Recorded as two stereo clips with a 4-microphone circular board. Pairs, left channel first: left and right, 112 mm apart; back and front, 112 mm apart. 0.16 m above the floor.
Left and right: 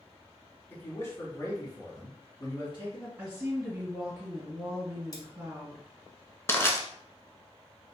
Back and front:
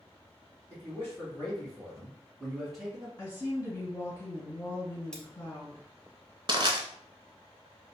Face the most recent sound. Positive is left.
turn(degrees=30)